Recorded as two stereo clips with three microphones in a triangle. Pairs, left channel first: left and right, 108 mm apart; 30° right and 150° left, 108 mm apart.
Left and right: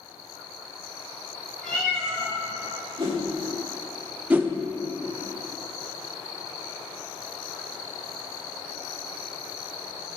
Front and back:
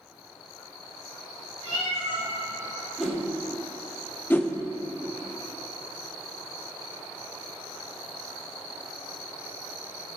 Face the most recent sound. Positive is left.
turn(degrees=-55)